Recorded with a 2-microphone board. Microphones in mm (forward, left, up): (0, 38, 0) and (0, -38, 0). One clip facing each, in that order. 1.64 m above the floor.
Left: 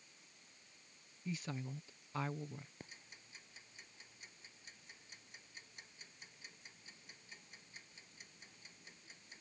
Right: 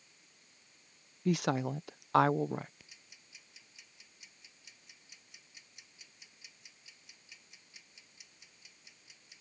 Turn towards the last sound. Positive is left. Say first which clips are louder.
# left 5 dB
turn(degrees=40)  # may be behind; listen again after turning